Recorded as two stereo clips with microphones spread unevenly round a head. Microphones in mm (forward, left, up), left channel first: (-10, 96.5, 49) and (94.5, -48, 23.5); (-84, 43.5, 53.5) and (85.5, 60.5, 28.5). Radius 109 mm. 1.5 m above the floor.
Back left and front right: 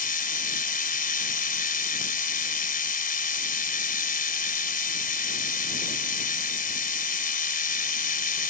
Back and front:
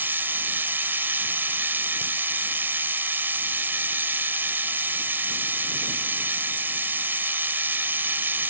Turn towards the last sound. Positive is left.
turn(degrees=85)